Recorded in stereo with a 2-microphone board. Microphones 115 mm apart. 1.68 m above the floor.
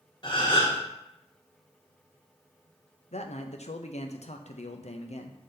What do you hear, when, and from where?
0.2 s a gasp: 40° left (ahead or behind), 2 m
3.1 s a man speaking: 70° left (ahead or behind), 0.7 m